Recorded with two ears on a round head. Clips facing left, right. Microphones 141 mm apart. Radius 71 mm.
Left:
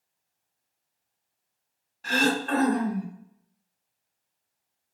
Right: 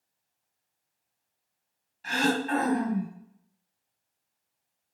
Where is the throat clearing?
65° left (ahead or behind), 1.3 m.